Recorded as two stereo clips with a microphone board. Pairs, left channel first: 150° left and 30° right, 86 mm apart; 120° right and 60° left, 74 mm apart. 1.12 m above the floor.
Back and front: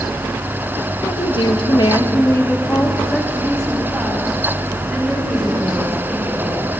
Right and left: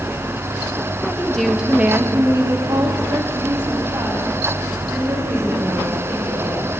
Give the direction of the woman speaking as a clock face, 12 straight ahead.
6 o'clock.